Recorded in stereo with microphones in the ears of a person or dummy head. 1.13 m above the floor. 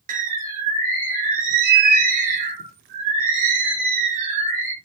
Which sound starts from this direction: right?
A bird, at 0.1 s.